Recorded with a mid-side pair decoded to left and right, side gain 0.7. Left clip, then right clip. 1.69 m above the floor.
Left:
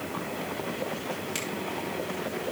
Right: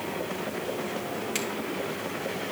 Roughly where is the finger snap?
Ahead.